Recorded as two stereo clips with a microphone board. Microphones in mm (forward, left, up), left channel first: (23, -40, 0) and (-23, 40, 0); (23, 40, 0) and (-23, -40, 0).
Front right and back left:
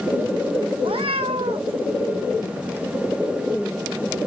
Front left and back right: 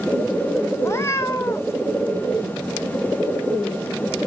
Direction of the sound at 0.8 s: 120° left.